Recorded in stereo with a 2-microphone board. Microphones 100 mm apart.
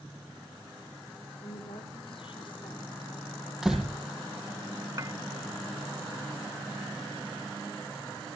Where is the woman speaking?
60° left (ahead or behind), 9 m; by 3.5 s 55° left (ahead or behind), 7 m.